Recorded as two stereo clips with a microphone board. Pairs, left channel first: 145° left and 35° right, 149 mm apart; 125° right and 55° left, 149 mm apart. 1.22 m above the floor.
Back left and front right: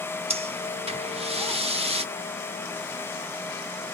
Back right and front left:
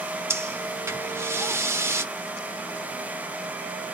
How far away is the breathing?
About 1.1 m.